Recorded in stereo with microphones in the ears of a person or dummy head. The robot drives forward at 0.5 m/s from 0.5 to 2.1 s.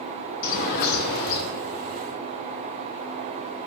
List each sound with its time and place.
0.4 s a bird: 50° left (ahead or behind), 0.9 m